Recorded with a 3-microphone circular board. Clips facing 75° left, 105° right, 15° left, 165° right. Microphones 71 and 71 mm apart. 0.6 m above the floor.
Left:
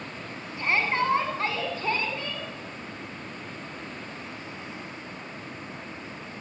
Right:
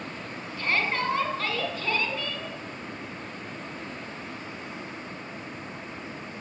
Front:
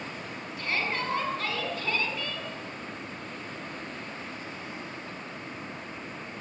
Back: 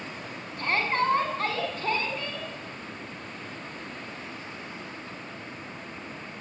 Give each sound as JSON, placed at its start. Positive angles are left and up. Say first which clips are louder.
{"t": 0.6, "sound": "a shout", "louder": "left 2 dB, back 5 dB", "azimuth_deg": 145, "distance_m": 5.0}